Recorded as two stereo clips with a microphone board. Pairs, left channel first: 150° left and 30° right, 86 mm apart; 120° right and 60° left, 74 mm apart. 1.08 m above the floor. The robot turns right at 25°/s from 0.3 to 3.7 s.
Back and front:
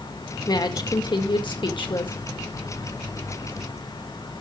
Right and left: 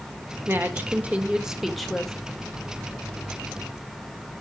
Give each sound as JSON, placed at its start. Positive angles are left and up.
{"t": 0.5, "sound": "a woman speaking", "azimuth_deg": 115, "distance_m": 1.8}